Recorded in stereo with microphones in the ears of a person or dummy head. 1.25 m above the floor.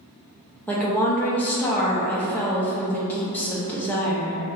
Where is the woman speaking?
5° left (ahead or behind), 0.5 m.